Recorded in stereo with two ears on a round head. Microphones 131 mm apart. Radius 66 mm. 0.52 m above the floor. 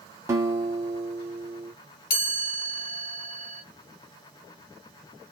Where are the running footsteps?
No running footsteps in this recording.